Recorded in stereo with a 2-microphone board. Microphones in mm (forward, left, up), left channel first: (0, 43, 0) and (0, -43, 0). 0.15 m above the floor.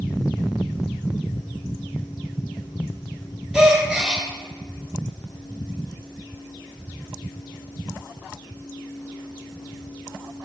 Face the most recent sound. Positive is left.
turn(degrees=-5)  # may be behind; listen again after turning